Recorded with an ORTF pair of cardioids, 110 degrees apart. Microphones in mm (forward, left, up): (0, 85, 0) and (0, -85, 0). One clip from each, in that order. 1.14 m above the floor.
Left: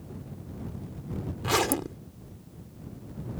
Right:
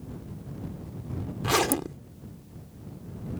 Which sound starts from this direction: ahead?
A zipper, at 1.4 s.